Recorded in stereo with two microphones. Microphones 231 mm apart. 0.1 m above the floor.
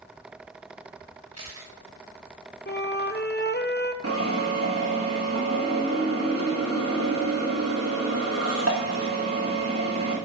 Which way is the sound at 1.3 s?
80° right.